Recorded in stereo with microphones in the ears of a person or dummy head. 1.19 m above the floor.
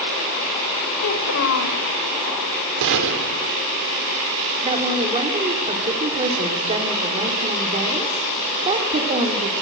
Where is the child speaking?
65° left (ahead or behind), 3 m.